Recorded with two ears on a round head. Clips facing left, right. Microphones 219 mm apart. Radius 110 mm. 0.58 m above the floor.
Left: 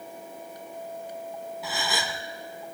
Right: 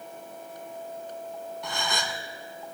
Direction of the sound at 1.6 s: 5° left (ahead or behind).